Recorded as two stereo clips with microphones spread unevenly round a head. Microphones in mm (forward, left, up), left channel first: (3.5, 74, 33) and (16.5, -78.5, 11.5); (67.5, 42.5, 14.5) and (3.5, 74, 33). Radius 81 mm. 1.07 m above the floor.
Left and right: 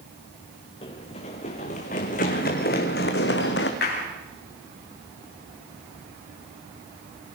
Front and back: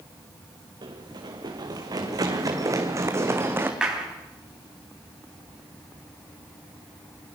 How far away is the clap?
About 8 m.